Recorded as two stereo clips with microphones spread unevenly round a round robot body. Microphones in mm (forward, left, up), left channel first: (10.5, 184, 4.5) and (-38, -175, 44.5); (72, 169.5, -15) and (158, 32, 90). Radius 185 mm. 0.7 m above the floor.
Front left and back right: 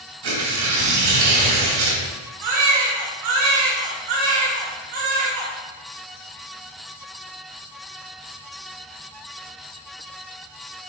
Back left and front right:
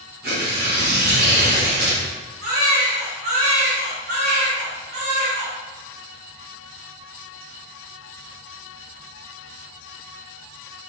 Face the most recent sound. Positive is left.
turn(degrees=-110)